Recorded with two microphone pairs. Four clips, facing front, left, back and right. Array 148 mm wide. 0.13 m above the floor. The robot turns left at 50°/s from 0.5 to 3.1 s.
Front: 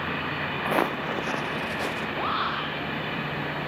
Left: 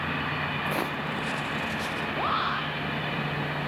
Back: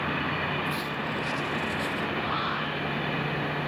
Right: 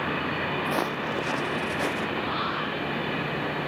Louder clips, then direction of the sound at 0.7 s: Right 2 dB, front 6 dB; 15° right.